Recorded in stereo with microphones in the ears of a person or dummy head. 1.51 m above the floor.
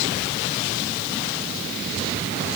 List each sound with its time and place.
Only background noise.